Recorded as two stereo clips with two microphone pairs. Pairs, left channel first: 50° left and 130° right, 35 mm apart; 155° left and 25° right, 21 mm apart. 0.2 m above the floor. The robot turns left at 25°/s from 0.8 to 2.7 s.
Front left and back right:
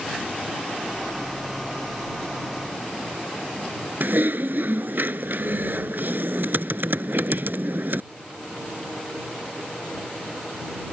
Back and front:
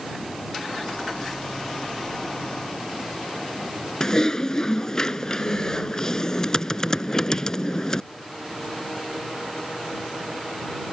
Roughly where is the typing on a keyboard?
Behind right.